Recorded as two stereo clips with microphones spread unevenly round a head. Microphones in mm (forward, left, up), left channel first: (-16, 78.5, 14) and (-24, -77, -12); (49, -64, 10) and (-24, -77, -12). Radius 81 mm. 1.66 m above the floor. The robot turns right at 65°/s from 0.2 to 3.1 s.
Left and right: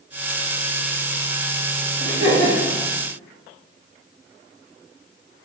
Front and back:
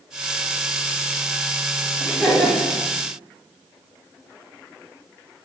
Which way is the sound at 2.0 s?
85° right.